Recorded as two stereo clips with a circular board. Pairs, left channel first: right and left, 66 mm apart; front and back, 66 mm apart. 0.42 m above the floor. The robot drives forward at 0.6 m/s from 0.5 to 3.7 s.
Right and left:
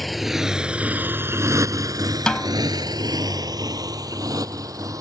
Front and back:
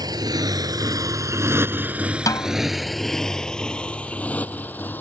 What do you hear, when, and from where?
0.0 s a motorcycle: 175° right; by 5.0 s 60° left
2.3 s a snare drum: 10° right